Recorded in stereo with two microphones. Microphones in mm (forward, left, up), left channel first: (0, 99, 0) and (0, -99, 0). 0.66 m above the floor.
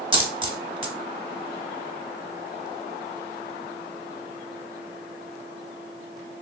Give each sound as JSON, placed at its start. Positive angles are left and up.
{"t": 0.1, "sound": "a dropped coin", "side_deg": -25, "distance_m": 0.6}